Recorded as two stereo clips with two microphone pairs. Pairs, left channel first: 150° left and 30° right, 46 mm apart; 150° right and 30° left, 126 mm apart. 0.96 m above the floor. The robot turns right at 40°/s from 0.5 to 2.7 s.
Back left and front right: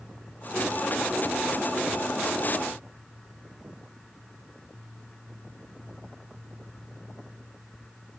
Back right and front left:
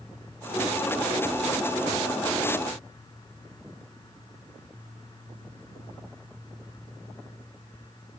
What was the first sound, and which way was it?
Only background noise.